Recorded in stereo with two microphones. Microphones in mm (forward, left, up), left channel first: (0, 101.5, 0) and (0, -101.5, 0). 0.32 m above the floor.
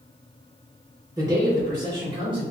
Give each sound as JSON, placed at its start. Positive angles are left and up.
{"t": 1.2, "sound": "a man speaking", "side_deg": -20, "distance_m": 0.8}